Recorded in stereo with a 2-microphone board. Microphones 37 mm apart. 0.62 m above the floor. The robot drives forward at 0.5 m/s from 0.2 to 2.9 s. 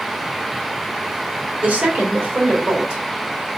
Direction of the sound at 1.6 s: 35° right (ahead or behind).